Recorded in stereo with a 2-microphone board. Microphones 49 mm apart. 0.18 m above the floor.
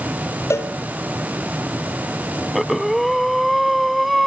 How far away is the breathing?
About 0.6 m.